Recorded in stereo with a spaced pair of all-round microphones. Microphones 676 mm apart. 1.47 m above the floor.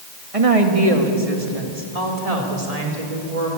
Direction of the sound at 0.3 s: 55° right (ahead or behind).